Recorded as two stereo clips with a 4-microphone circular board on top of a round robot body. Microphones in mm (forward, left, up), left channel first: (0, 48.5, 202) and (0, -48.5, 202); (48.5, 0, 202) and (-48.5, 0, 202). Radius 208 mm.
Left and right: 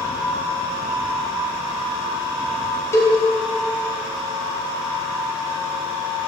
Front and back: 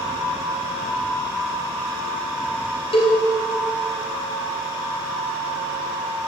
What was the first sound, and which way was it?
A cowbell, 25° left.